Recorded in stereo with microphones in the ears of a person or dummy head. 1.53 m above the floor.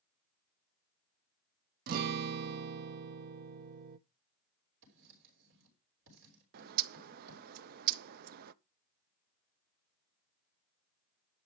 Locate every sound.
1.9 s a guitar: 55° right (ahead or behind), 0.7 m
4.8 s writing: 70° right (ahead or behind), 5.5 m
6.5 s a bird: 50° right (ahead or behind), 0.6 m